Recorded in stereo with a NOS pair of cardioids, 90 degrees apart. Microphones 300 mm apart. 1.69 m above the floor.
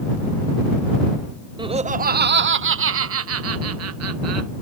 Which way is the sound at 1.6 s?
15° right.